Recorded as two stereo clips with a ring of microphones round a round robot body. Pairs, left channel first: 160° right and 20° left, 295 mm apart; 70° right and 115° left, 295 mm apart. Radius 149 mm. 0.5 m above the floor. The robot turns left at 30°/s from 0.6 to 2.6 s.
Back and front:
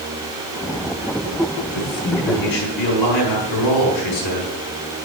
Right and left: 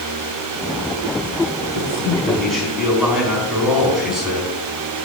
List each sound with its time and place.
1.7 s a man speaking: 135° right, 4 m; by 4.5 s 160° right, 4 m